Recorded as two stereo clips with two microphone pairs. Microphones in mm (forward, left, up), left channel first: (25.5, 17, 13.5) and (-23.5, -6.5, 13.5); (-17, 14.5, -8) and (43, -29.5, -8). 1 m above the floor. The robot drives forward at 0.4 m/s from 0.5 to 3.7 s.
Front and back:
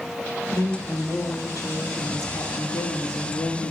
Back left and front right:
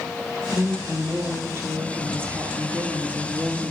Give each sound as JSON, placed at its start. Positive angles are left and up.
{"t": 0.5, "sound": "a woman speaking", "azimuth_deg": 15, "distance_m": 2.0}